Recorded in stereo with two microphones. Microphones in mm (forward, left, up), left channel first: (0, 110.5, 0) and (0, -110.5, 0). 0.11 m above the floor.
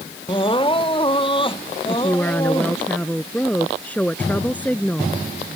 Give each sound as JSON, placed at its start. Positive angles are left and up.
{"t": 0.3, "sound": "crying", "side_deg": 25}
{"t": 1.9, "sound": "a woman speaking", "side_deg": 5}